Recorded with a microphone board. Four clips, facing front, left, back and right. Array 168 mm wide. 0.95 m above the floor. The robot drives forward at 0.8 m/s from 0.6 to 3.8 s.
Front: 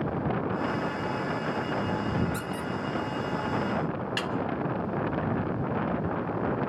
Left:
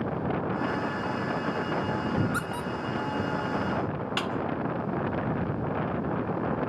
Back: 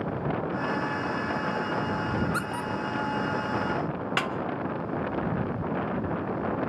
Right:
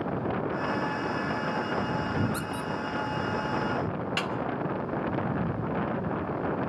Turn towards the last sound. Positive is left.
turn(degrees=170)